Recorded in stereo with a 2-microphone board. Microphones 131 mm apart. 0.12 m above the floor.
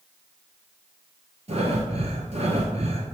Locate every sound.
1.5 s breathing: 55° right (ahead or behind), 0.9 m